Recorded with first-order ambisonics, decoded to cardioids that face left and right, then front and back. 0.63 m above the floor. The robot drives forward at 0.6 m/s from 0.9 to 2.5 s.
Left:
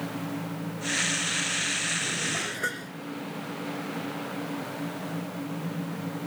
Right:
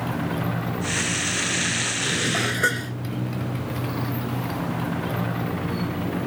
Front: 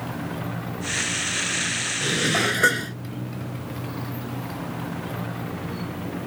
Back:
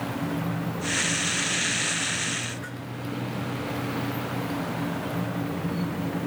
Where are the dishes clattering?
25° right; by 3.0 s 30° right.